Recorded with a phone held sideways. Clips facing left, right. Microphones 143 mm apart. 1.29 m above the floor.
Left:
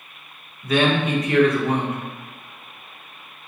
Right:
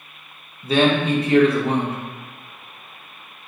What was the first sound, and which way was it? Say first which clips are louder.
A man speaking: right 2 dB; 30° right (ahead or behind).